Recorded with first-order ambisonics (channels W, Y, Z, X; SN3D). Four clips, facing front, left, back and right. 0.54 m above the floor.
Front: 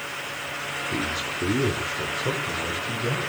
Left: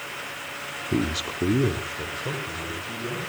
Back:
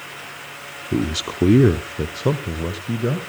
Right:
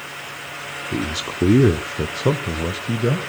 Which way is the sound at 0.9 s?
165° left.